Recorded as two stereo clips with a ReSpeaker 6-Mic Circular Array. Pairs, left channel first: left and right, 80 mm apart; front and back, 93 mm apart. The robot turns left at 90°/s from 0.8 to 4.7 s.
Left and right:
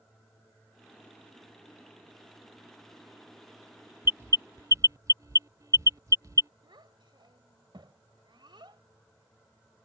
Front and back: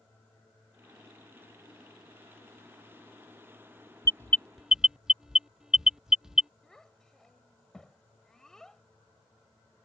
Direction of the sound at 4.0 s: 40° right.